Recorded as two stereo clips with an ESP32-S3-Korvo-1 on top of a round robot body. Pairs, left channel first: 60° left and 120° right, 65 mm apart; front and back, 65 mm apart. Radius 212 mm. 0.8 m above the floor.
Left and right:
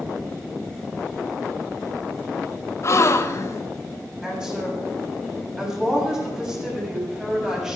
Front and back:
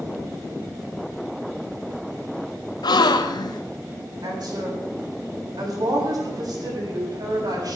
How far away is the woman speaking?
About 7.5 m.